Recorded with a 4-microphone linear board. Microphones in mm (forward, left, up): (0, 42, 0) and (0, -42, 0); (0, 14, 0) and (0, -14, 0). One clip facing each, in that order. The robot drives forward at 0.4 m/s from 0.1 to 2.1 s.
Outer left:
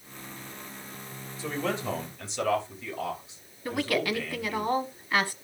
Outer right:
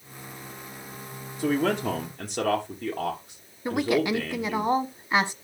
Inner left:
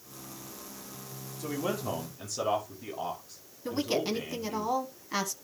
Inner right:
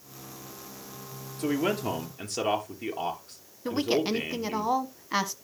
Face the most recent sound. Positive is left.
turn(degrees=-20)  # may be behind; listen again after turning